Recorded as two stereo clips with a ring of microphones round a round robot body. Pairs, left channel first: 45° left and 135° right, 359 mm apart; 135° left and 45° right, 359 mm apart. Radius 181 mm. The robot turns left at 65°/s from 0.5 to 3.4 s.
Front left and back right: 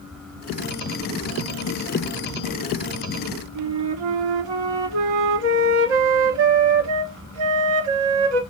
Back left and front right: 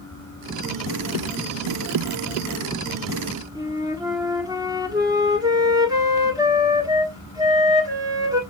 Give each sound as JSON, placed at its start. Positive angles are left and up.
{"t": 3.5, "sound": "a flute", "azimuth_deg": -125, "distance_m": 1.4}